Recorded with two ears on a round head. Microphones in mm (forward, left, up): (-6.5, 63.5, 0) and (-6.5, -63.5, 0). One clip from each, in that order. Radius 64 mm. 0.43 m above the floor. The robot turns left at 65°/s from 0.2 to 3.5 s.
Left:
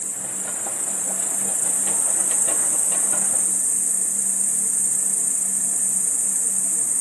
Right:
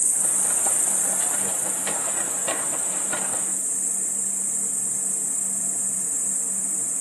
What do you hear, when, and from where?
0.0 s an insect: 105° right, 1.0 m; by 7.0 s 40° left, 1.0 m